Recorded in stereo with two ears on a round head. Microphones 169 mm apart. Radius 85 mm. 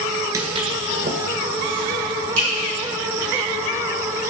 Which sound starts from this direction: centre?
Footsteps, at 0.3 s.